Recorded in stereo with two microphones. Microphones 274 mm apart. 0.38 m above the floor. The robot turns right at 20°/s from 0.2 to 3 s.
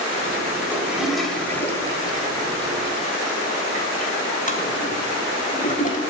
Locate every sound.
0.7 s a toilet flushing: 5° right (ahead or behind), 2 m; by 6.0 s 30° left (ahead or behind), 2 m